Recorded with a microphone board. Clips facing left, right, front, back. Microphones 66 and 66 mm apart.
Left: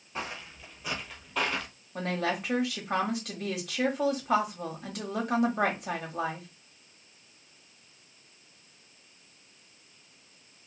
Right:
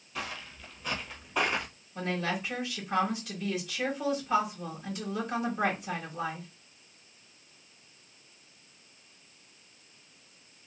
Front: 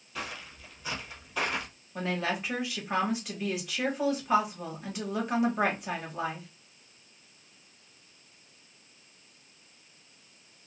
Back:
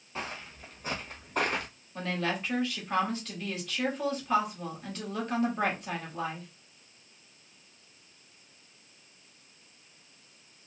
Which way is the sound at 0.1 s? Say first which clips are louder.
Left 1 dB, back 1 dB; 140° left.